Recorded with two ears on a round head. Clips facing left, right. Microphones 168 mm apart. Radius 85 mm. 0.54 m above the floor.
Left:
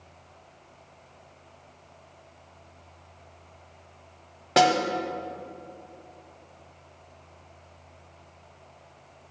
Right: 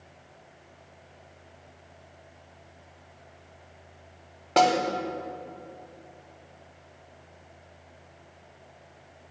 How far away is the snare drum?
About 0.6 m.